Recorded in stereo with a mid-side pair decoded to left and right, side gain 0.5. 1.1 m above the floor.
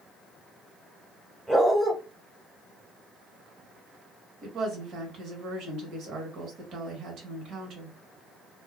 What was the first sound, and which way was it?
A dog barking, 10° right.